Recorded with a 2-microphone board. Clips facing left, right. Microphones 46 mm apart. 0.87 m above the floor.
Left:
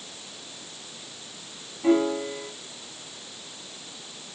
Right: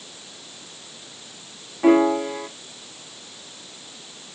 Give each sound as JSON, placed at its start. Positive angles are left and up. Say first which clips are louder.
{"t": 1.8, "sound": "a piano", "louder": "right 6 dB", "side_deg": -70, "distance_m": 1.1}